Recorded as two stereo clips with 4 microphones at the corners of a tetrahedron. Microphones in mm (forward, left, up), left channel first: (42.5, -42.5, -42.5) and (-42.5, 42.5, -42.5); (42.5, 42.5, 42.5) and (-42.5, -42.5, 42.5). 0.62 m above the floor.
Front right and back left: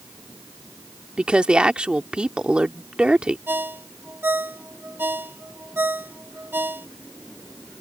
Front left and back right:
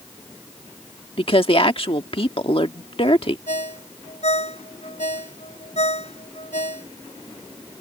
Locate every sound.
1.2 s a woman speaking: 55° left
3.5 s a ringtone: 60° left